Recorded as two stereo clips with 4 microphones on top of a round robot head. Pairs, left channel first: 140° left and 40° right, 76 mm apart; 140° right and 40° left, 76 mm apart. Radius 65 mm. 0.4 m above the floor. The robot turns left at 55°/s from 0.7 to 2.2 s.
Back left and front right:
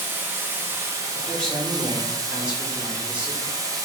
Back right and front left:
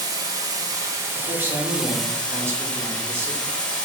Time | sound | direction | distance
0.0 | running water | 15° left | 1.0 m
1.1 | a man speaking | 80° left | 1.2 m